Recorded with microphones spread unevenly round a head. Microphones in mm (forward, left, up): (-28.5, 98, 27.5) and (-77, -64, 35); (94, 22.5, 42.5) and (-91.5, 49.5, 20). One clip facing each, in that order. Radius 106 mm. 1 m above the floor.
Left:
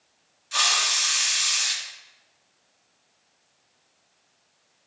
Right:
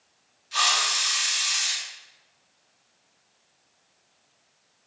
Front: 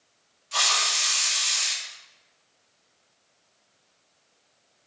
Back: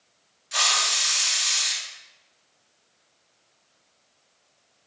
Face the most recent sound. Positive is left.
turn(degrees=100)